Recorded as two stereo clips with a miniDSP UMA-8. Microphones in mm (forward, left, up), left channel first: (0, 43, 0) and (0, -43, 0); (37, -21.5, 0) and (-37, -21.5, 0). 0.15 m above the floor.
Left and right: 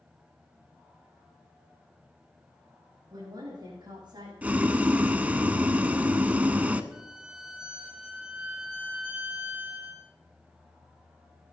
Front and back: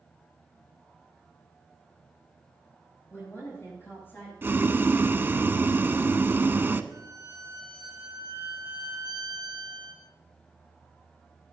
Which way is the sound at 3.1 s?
55° right.